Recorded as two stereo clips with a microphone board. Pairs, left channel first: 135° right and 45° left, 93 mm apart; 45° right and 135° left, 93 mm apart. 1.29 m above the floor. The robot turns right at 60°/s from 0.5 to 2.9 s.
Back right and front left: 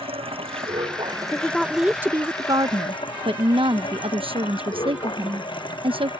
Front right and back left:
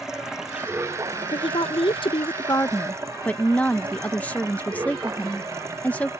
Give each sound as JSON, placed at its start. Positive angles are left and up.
{"t": 0.0, "sound": "running water", "azimuth_deg": 50}
{"t": 1.3, "sound": "a woman speaking", "azimuth_deg": -65}